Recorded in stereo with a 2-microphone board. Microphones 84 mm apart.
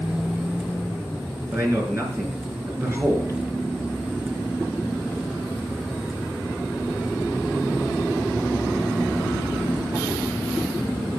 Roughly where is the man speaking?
Right.